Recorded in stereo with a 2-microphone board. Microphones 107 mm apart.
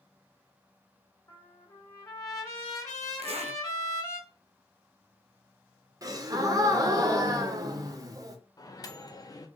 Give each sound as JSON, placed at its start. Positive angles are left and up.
{"t": 1.3, "sound": "a trumpet", "side_deg": 35, "distance_m": 1.6}
{"t": 3.2, "sound": "a zipper", "side_deg": -70, "distance_m": 0.6}
{"t": 6.0, "sound": "a gasp", "side_deg": -35, "distance_m": 0.7}
{"t": 8.6, "sound": "a microwave", "side_deg": 35, "distance_m": 0.5}